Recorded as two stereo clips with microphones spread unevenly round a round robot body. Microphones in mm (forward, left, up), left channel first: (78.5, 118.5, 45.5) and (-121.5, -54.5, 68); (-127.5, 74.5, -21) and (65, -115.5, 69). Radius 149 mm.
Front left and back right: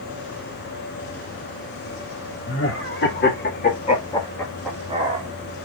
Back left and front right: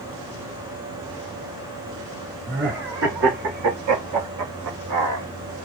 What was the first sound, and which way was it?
Laughter, 15° left.